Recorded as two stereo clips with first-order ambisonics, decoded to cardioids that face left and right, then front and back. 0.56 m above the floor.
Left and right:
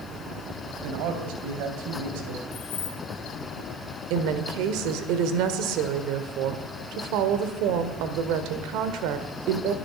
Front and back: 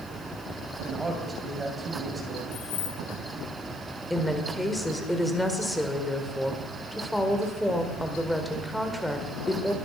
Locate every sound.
0.8 s a man speaking: 100° right, 2.5 m
2.5 s keys jangling: 30° left, 4.5 m
4.1 s a woman speaking: 85° right, 1.6 m